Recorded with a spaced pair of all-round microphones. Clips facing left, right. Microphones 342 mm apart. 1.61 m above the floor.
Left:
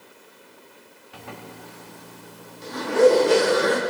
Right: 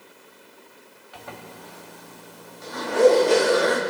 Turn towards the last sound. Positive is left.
turn(degrees=35)  # may be behind; listen again after turning